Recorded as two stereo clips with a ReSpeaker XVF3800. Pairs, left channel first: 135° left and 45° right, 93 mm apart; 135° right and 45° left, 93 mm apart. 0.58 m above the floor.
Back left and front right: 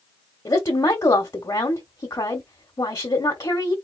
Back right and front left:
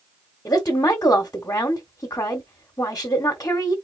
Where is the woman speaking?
175° left, 1.2 m.